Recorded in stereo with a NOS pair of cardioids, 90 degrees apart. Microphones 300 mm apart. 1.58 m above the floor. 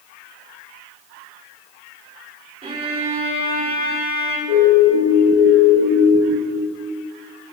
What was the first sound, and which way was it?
A violin, 20° right.